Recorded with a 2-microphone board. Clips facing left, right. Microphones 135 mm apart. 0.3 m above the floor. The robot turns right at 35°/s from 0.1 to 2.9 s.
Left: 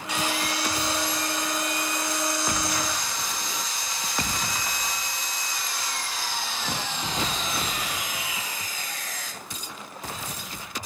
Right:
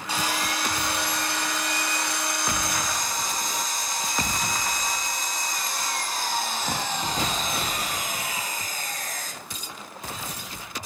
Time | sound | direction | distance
0.1 | sawing | 145° right | 0.5 m